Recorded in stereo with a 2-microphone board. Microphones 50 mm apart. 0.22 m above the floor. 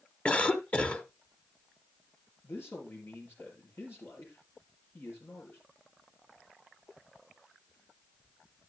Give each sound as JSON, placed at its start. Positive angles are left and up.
{"t": 0.2, "sound": "a cough", "side_deg": 25, "distance_m": 1.1}
{"t": 2.4, "sound": "a man speaking", "side_deg": 50, "distance_m": 4.5}